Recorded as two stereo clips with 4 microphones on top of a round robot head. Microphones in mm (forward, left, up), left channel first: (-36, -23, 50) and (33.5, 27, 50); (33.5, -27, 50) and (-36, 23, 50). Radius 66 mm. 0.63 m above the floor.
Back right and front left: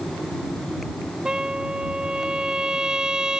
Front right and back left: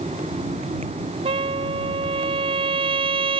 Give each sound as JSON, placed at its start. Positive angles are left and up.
{"t": 1.2, "sound": "a trumpet", "azimuth_deg": 115}